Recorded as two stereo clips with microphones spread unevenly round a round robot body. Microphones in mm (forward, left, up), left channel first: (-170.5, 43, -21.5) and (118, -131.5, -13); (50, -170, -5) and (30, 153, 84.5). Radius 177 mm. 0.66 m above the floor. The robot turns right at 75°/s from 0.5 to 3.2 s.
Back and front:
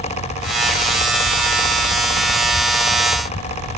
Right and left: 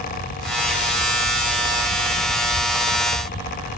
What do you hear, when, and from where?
Only background noise.